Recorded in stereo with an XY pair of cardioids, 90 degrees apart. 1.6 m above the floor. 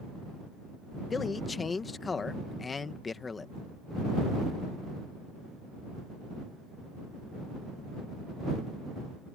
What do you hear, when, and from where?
1.1 s a man speaking: 40° left